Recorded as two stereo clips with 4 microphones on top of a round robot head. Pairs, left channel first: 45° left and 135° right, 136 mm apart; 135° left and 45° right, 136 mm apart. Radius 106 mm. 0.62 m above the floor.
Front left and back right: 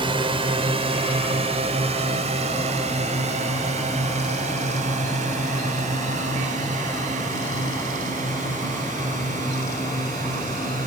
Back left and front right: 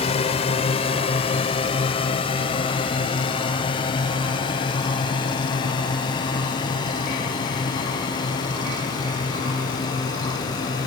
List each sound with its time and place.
0.0 s a drone: 175° left; by 10.9 s 165° right